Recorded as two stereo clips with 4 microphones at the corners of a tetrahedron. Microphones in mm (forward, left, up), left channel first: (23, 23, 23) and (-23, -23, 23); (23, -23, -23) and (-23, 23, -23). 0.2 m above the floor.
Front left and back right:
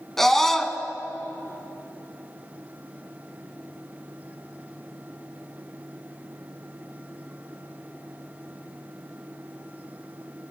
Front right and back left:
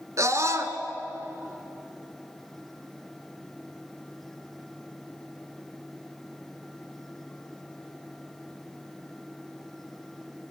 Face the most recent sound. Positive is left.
turn(degrees=130)